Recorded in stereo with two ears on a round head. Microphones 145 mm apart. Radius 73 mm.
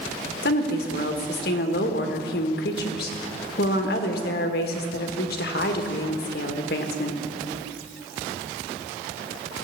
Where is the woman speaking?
65° left (ahead or behind), 1.5 m.